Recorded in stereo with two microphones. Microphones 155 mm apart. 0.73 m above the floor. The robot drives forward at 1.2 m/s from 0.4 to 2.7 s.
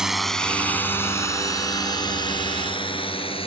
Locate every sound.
0.0 s a drone: 5° right (ahead or behind); by 3.5 s 40° left (ahead or behind)